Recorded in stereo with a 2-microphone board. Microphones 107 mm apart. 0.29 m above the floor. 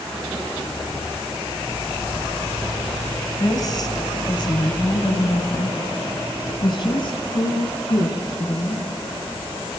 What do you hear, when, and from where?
3.4 s a woman speaking: 35° left (ahead or behind), 1.7 m; by 9.8 s 40° left (ahead or behind), 3.5 m